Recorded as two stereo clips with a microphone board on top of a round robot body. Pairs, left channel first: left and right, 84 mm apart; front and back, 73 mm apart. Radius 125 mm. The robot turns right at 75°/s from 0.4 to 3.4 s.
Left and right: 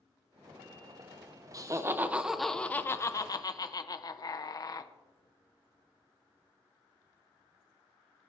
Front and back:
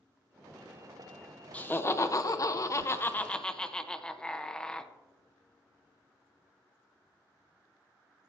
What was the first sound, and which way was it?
Laughter, 65° right.